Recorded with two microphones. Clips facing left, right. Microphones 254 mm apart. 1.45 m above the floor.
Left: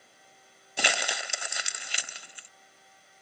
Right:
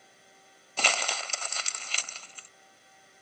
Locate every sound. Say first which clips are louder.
0.8 s crumpling: left 1 dB; 15° left (ahead or behind)